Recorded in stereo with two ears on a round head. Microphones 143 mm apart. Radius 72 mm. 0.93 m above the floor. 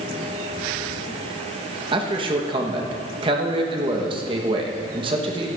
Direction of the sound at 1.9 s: 30° right (ahead or behind).